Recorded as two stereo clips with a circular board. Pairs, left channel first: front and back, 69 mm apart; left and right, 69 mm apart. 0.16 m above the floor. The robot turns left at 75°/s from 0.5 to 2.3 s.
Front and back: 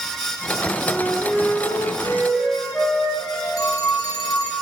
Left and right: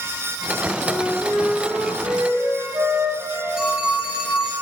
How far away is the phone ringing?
About 1.8 m.